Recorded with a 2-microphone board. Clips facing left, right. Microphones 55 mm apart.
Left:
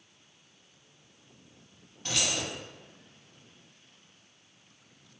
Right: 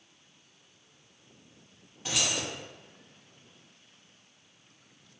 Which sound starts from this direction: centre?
Keys jangling, at 2.0 s.